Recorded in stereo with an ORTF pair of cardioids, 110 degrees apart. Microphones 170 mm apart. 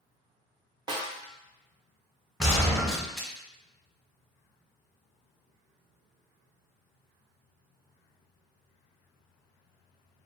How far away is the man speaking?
I don't hear a man speaking.